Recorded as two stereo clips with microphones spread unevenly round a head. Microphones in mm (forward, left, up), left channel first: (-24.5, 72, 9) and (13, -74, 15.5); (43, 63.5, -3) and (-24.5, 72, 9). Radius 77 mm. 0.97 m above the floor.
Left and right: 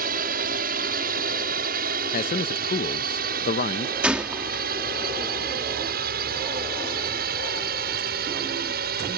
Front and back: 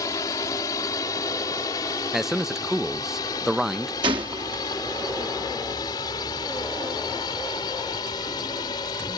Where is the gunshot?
160° right.